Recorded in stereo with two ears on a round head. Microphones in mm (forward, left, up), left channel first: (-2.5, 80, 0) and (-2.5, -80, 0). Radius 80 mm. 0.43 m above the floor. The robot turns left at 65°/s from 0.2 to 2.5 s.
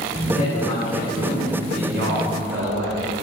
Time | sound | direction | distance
0.3 | a man speaking | 45° left | 3.5 m